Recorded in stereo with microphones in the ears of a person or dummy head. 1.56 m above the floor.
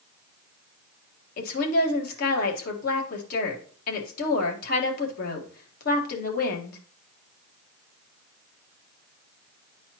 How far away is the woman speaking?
About 1.7 m.